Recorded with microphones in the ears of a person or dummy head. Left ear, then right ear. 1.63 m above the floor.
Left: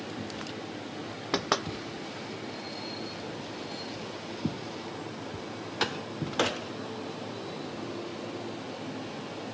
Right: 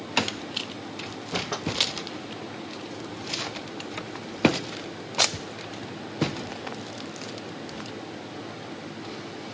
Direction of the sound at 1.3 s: 55° left (ahead or behind).